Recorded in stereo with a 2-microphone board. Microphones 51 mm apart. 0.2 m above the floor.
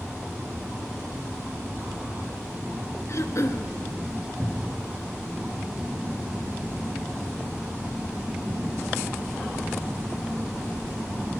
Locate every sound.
3.1 s throat clearing: 60° left (ahead or behind), 1.2 m
4.4 s a cupboard door: centre (ahead or behind), 3.5 m